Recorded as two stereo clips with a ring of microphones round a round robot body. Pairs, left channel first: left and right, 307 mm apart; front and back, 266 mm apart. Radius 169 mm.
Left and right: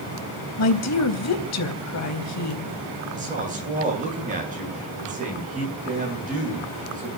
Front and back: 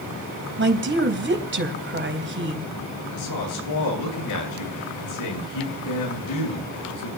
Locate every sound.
0.6 s a woman speaking: 130° left, 4 m
3.1 s a woman speaking: 25° right, 9 m